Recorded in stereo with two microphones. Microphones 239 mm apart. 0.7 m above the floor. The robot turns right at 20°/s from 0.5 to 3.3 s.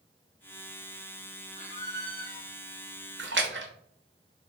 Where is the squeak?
25° right (ahead or behind), 0.9 m; by 2.5 s 45° right (ahead or behind), 0.9 m.